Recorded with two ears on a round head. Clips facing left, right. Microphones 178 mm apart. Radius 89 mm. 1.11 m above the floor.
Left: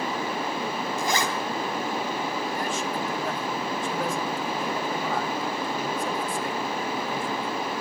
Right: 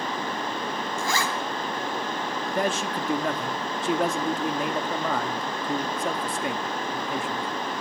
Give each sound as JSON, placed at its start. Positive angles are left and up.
{"t": 1.0, "sound": "a zipper", "side_deg": 15, "distance_m": 3.5}
{"t": 2.5, "sound": "a man speaking", "side_deg": -55, "distance_m": 1.9}